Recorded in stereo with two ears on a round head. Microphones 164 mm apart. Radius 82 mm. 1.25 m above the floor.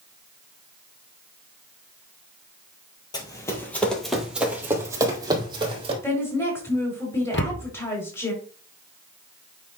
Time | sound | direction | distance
3.1 | running footsteps | 20° left (ahead or behind) | 2 m
6.0 | a woman speaking | 15° left (ahead or behind) | 4 m
7.3 | a cupboard door | 65° left (ahead or behind) | 0.8 m